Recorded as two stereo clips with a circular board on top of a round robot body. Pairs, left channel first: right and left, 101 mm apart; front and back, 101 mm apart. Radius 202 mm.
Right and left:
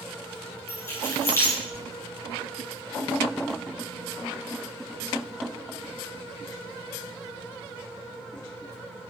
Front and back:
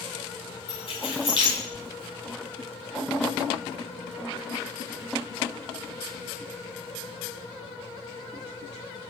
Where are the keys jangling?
30° right, 7 m.